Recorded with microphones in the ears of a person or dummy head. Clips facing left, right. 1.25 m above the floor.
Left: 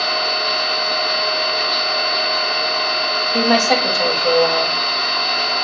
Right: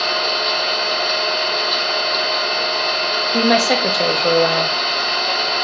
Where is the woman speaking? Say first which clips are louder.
Even; 30° right (ahead or behind), 0.9 m.